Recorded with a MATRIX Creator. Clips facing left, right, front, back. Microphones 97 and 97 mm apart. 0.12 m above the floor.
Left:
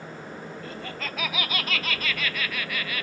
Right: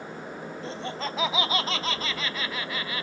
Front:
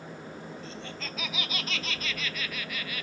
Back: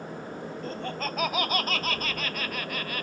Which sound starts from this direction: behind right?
Laughter, at 0.6 s.